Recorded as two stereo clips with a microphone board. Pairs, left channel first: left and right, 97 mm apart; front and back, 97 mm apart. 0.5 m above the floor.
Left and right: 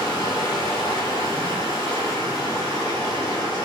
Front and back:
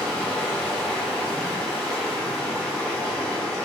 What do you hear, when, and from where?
0.0 s running water: 85° left, 1.3 m